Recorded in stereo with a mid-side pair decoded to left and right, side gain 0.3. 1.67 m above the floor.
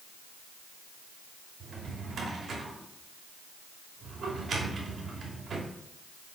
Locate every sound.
1.6 s a drawer: 65° right, 2.5 m